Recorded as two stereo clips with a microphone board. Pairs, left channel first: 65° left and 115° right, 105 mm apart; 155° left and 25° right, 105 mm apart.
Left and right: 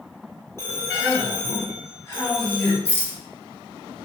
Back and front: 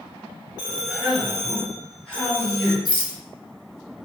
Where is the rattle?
130° left, 0.8 m.